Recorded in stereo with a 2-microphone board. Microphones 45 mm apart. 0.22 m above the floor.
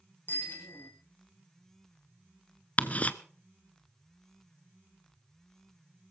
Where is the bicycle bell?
55° left (ahead or behind), 6 m.